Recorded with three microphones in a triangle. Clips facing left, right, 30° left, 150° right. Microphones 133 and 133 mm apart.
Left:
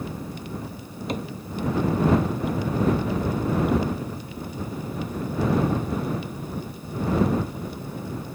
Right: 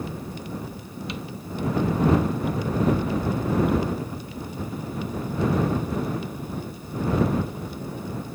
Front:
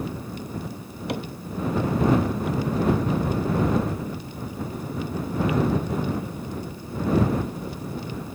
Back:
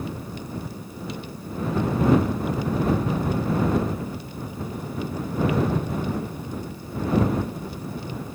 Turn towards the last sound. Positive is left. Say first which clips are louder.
# left 6 dB, front 7 dB
turn(degrees=45)